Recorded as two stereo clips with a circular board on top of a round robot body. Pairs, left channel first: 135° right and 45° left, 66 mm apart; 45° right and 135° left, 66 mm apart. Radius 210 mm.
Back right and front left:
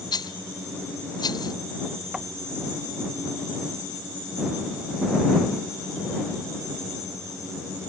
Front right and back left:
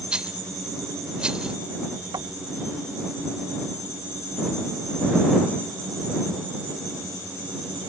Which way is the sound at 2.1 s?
125° left.